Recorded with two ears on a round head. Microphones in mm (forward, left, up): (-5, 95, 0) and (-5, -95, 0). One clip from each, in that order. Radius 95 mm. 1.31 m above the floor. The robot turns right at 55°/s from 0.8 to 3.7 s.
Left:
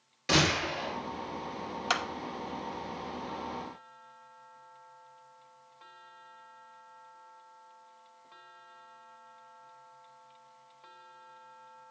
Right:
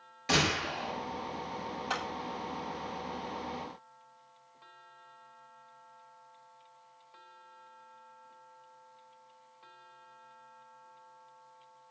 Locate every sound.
0.3 s a gunshot: 5° left (ahead or behind), 7.5 m; by 1.0 s 15° left (ahead or behind), 7.5 m
1.9 s a clap: 50° left (ahead or behind), 1.0 m; by 2.0 s 60° left (ahead or behind), 1.0 m